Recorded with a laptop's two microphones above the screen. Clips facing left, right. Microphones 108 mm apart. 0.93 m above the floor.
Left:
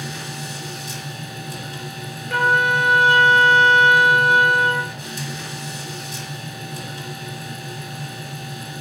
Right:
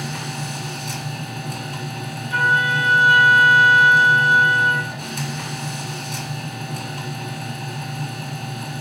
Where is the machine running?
60° right (ahead or behind), 1.4 m.